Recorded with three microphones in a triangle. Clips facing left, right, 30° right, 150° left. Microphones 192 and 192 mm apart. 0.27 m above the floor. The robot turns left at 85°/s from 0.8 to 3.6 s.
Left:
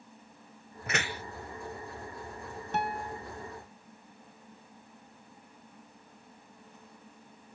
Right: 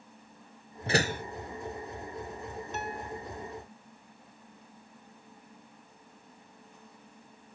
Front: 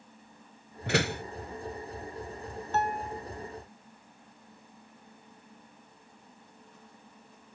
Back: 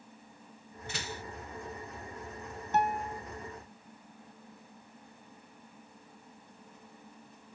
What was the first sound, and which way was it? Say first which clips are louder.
A door slam: right 7 dB, front 13 dB; 30° right.